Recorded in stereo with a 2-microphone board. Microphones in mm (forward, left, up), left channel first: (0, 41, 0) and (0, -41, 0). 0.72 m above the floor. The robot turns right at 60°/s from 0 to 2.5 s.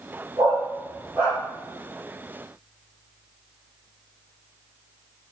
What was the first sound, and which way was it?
A dog barking, 70° right (ahead or behind).